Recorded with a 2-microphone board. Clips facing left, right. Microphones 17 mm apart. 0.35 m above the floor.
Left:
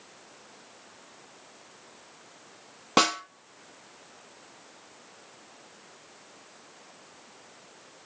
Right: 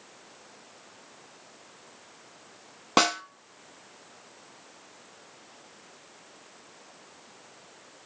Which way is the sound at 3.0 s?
5° right (ahead or behind).